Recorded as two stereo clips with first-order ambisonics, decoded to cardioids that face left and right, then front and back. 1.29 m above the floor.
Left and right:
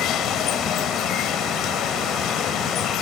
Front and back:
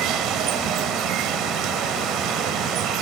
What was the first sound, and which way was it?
Running water, 140° left.